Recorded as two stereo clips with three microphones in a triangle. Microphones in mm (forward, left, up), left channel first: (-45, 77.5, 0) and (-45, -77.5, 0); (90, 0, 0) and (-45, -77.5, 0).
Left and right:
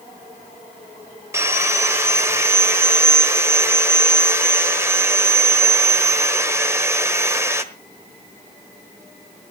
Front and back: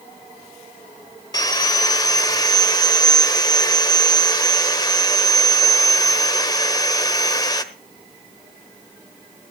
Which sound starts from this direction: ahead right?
Sawing, at 1.3 s.